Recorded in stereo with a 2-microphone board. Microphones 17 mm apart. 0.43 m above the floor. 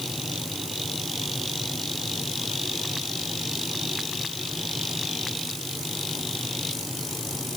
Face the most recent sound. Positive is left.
No sound to turn to.